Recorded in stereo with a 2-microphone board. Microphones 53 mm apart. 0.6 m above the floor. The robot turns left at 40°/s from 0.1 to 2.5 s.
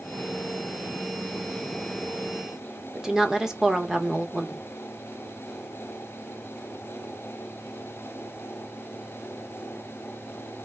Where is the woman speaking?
10° right (ahead or behind), 0.8 m.